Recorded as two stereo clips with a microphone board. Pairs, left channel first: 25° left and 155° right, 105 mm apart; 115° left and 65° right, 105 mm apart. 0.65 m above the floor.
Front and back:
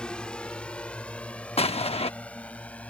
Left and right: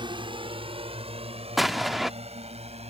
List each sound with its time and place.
0.0 s a drone: 55° right
1.6 s an explosion: 20° left